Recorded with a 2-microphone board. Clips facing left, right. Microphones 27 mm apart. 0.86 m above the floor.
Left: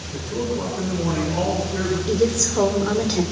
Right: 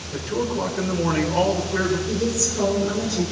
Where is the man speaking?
30° right (ahead or behind), 3.5 m.